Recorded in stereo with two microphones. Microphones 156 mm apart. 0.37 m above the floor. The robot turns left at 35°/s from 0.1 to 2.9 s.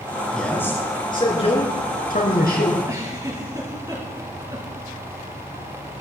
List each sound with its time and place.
0.3 s a man speaking: 175° left, 4.5 m; by 2.8 s 90° left, 4.5 m
2.9 s a giggle: 20° right (ahead or behind), 4.5 m